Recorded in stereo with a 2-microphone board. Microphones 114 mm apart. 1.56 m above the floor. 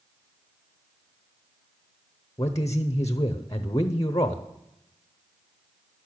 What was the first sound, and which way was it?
A man speaking, 30° left (ahead or behind).